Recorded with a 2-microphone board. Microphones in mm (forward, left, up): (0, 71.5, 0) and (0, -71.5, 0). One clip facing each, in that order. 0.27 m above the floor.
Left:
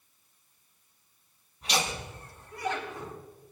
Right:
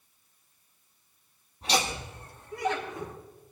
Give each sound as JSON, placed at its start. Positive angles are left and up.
{"t": 1.6, "sound": "laughter", "side_deg": -35, "distance_m": 5.5}